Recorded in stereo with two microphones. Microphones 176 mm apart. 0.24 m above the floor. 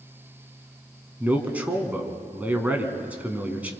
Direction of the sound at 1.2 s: 10° right (ahead or behind).